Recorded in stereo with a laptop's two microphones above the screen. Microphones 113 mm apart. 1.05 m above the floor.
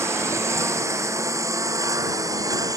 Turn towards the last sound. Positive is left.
turn(degrees=-30)  # may be behind; listen again after turning